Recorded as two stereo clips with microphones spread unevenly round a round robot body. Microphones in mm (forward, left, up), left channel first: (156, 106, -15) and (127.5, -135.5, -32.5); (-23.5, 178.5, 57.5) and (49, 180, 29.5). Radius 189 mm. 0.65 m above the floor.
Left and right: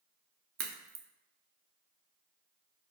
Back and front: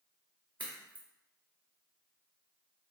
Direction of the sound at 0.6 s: 85° right.